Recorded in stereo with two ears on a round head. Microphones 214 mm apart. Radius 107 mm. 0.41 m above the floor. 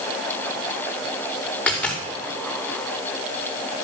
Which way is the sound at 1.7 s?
5° left (ahead or behind).